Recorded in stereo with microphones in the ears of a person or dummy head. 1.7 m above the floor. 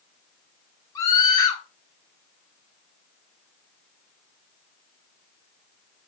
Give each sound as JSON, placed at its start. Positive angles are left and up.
{"t": 0.9, "sound": "a scream", "side_deg": 20, "distance_m": 6.0}